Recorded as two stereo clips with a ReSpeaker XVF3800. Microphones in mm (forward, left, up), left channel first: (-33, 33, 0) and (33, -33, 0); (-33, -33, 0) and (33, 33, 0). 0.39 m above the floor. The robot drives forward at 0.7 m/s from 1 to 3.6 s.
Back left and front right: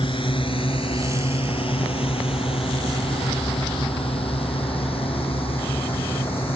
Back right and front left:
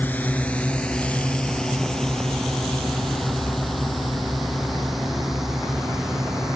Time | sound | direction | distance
0.0 | a drone | 155° left | ?